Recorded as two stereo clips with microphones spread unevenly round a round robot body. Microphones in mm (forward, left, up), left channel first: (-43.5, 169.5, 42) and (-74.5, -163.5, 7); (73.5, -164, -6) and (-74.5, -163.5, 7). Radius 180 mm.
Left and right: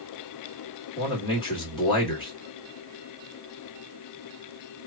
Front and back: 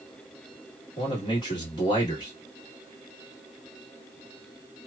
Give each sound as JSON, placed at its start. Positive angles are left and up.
{"t": 1.0, "sound": "a man speaking", "azimuth_deg": 10, "distance_m": 1.4}